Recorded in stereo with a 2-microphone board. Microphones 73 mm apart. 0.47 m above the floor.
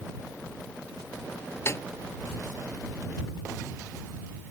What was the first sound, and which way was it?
A snare drum, 40° left (ahead or behind).